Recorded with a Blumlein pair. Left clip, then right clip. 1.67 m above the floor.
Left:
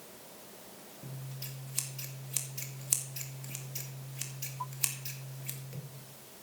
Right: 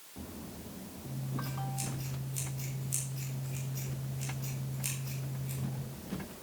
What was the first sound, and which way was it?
Scissors, 35° left.